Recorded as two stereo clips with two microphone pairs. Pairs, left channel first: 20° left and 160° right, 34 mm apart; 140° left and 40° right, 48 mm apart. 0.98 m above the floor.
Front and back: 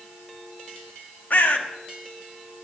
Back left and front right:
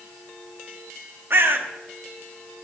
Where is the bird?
Straight ahead, 0.7 m.